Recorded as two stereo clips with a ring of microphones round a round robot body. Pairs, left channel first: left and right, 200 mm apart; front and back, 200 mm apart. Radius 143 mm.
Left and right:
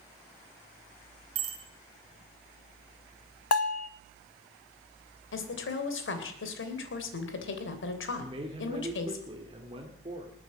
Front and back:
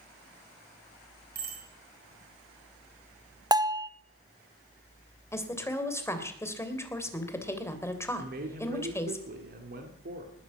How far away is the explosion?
I don't hear an explosion.